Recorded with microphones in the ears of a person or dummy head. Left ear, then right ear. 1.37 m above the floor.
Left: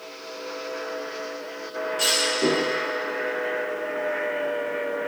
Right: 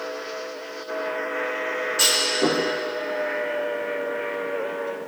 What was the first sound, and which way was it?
A clunk, 50° right (ahead or behind).